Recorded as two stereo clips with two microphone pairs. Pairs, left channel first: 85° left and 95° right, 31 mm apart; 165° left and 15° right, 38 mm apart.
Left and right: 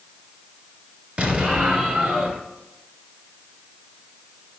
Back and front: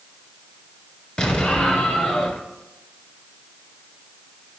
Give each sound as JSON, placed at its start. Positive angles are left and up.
{"t": 1.2, "sound": "an explosion", "azimuth_deg": -135, "distance_m": 1.8}